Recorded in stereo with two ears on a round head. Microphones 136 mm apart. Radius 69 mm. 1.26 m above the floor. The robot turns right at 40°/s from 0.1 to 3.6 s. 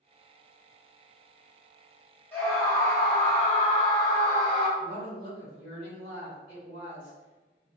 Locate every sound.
2.3 s a scream: 10° left, 1.8 m; by 4.7 s 60° left, 1.8 m
4.8 s a woman speaking: 65° left (ahead or behind), 1.7 m